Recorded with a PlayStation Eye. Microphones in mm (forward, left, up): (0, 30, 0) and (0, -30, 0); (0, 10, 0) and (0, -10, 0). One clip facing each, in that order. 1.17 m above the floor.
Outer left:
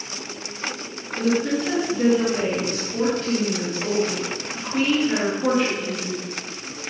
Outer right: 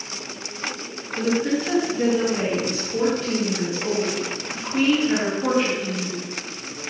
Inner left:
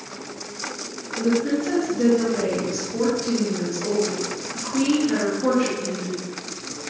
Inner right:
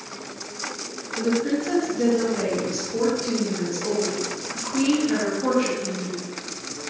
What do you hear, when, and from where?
1.2 s a woman speaking: 10° right (ahead or behind), 1.6 m